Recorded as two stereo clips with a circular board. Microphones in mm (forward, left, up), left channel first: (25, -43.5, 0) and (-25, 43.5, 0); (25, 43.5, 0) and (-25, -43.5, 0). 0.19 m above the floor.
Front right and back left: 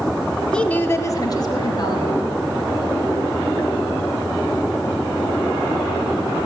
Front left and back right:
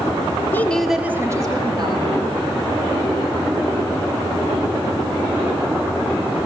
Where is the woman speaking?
15° left, 1.2 m; by 2.2 s 100° right, 2.5 m.